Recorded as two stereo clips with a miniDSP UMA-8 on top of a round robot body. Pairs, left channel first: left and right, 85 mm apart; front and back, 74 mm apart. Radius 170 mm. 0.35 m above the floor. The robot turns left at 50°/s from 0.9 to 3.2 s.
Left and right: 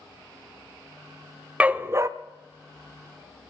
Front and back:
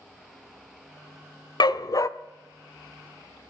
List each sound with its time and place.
1.6 s a dog barking: 15° right, 0.6 m; by 2.1 s 40° right, 0.6 m